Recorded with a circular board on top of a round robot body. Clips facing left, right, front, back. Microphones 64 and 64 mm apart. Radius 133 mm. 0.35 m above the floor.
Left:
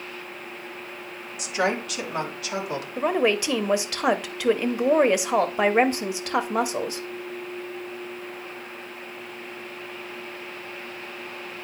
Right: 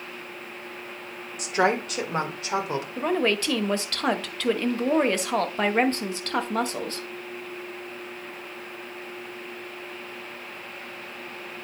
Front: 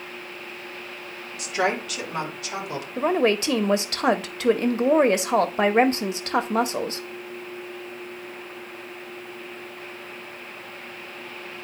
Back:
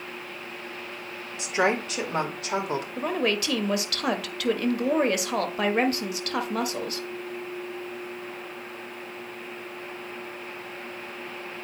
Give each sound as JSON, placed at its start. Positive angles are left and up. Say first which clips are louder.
{"t": 1.4, "sound": "a woman speaking", "louder": "right 2 dB, even", "azimuth_deg": -120, "distance_m": 2.0}
{"t": 3.0, "sound": "a woman speaking", "louder": "left 3 dB, front 7 dB", "azimuth_deg": 25, "distance_m": 1.0}